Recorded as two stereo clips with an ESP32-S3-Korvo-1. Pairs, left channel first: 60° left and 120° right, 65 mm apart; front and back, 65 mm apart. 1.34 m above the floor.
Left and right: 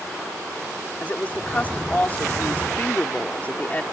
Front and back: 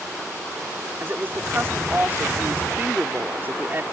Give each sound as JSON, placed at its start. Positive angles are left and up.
{"t": 1.0, "sound": "a woman speaking", "azimuth_deg": 125}